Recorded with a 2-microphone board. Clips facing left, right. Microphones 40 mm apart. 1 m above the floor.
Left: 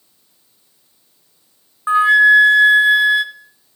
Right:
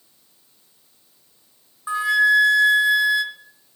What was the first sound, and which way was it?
A flute, 35° left (ahead or behind).